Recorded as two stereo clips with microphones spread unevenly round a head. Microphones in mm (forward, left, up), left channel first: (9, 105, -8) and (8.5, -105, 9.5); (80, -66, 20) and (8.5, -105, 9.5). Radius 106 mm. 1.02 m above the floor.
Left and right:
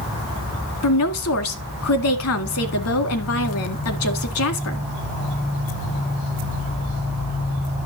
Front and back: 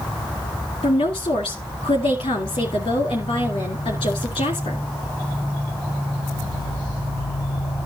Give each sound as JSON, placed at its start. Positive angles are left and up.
{"t": 0.8, "sound": "a woman speaking", "azimuth_deg": 75, "distance_m": 1.9}